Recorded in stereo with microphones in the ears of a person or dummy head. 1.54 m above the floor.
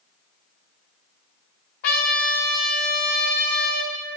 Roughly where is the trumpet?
Left.